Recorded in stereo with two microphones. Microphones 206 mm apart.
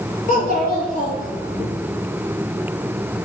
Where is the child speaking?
45° left (ahead or behind), 1.4 m.